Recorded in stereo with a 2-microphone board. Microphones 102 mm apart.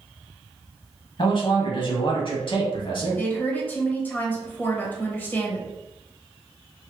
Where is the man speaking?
55° left (ahead or behind), 1.5 m.